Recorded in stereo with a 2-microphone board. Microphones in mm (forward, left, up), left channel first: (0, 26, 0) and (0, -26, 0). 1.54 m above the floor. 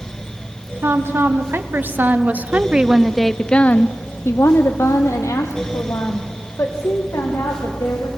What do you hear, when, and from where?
0.8 s a woman speaking: 55° right (ahead or behind), 1.8 m; by 8.1 s 85° left, 3 m